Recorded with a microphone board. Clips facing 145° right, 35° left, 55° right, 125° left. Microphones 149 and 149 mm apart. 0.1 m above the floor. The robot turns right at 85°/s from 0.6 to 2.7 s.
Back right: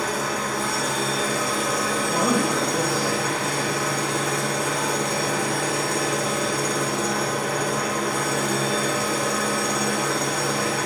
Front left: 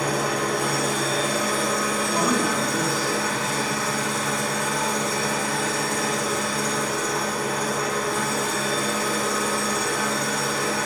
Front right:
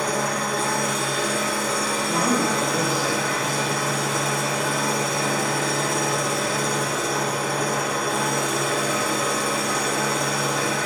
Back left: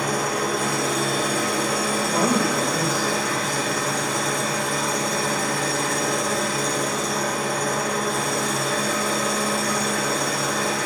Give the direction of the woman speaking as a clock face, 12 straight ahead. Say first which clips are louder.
Back right 2 dB, even; 7 o'clock.